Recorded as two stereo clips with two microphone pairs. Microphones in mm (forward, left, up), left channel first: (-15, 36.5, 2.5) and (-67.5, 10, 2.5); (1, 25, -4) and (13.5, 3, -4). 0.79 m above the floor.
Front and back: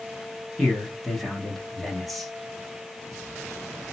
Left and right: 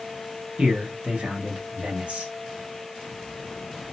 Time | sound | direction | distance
0.6 | a man speaking | 60° right | 1.2 m